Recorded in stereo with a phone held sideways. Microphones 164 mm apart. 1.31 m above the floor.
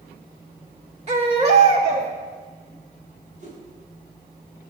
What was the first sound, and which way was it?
A baby crying, 40° right (ahead or behind).